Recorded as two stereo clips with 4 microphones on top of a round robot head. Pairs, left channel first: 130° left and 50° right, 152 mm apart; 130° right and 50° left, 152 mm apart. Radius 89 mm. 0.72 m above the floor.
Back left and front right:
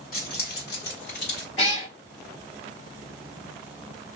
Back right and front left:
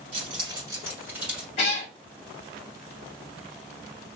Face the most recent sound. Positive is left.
turn(degrees=180)